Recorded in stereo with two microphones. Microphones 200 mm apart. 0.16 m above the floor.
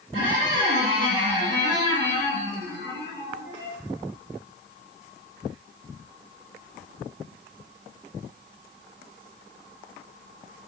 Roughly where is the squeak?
Right.